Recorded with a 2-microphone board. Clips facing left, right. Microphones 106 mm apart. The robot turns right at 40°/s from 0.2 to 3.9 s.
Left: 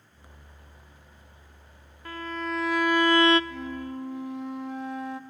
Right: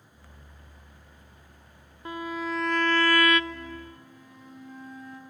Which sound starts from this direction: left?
A flute, at 3.5 s.